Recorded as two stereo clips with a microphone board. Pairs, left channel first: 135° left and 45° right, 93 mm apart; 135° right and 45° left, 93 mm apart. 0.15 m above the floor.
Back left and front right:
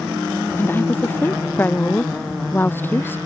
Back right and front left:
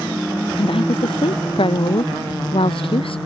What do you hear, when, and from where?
0.6 s a woman speaking: 155° right